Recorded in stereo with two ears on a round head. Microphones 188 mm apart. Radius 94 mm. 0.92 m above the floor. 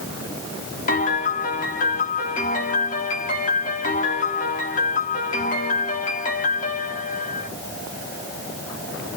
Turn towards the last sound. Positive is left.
turn(degrees=40)  # may be behind; listen again after turning